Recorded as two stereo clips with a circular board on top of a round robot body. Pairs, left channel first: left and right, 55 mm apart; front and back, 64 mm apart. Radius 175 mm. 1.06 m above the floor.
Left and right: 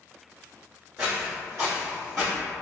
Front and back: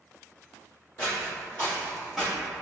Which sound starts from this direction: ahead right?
Footsteps, at 1.0 s.